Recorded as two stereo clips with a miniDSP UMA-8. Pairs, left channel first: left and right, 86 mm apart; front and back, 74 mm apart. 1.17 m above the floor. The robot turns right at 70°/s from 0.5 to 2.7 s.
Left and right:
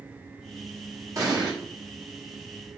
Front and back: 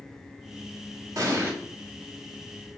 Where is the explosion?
140° right, 1.3 m; by 1.5 s 115° right, 1.3 m.